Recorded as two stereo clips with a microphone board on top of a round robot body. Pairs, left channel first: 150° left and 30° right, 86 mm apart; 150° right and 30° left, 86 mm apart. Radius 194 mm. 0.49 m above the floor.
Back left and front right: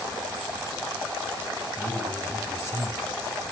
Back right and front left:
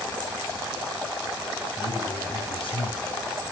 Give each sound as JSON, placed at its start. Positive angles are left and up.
{"t": 1.8, "sound": "a man speaking", "azimuth_deg": -150, "distance_m": 6.5}